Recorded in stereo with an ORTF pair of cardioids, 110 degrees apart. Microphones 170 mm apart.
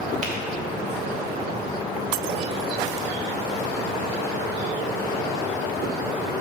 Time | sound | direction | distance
0.2 | a finger snap | 50° right | 1.7 m